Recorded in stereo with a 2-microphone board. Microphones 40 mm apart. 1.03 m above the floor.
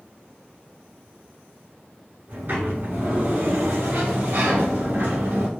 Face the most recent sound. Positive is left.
turn(degrees=-60)  # may be behind; listen again after turning